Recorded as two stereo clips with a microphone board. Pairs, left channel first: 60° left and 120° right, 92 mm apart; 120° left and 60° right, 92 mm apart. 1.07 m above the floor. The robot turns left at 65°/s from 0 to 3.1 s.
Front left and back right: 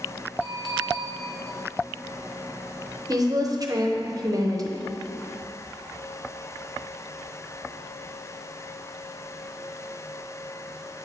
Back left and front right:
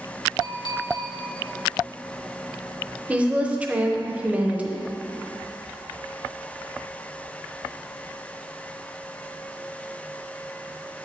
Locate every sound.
0.4 s a clink: 165° left, 1.6 m; by 1.1 s 120° left, 1.6 m
3.1 s a woman speaking: 130° right, 0.8 m